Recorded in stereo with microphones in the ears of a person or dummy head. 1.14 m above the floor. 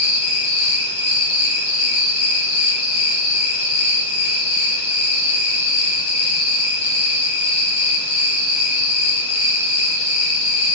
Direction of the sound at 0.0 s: 40° left (ahead or behind).